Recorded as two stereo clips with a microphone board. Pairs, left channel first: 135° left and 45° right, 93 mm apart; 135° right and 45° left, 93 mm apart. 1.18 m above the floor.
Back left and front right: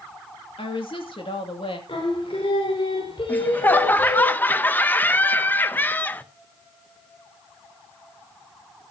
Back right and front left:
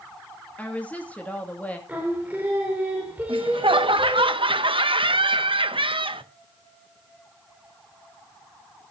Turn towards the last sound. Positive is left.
turn(degrees=65)